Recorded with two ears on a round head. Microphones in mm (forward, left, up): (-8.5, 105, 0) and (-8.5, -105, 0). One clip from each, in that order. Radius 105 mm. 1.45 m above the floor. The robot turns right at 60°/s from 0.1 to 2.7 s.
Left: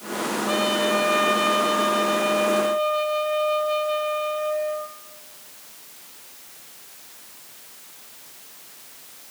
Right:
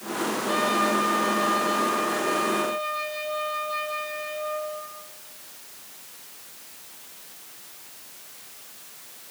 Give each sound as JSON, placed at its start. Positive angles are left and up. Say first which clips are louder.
{"t": 0.5, "sound": "a trumpet", "louder": "left 1 dB", "azimuth_deg": 20, "distance_m": 4.0}